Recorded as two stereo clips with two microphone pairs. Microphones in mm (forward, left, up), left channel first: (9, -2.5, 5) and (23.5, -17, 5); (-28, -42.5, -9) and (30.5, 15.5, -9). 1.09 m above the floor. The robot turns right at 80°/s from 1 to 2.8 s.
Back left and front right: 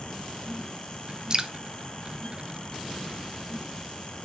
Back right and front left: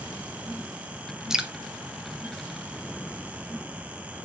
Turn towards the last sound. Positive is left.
turn(degrees=85)